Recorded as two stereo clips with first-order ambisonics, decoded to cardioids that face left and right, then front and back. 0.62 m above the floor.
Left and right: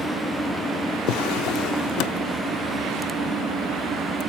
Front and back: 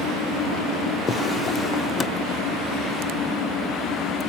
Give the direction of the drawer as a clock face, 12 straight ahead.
10 o'clock.